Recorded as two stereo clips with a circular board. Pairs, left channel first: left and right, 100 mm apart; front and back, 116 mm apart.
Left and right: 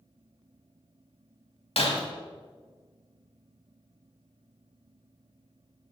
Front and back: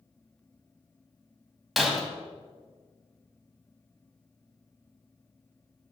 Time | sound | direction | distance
1.8 | breaking glass | 90° left | 2 m